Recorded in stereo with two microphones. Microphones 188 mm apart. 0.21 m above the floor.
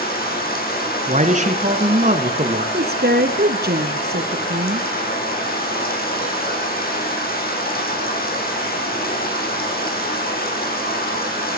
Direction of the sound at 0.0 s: 50° left (ahead or behind).